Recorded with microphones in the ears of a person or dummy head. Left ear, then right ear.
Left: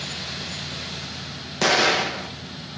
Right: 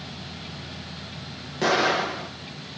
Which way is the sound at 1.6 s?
30° left (ahead or behind).